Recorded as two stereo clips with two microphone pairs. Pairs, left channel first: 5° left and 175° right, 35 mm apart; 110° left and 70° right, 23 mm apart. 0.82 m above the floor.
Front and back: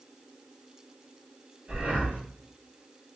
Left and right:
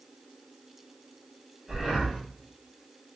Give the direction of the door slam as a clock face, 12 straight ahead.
I don't hear a door slam.